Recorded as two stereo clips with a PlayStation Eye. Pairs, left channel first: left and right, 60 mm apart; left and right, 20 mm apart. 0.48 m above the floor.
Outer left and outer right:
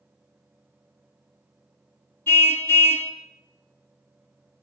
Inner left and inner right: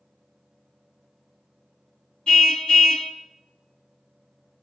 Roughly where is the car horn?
Left.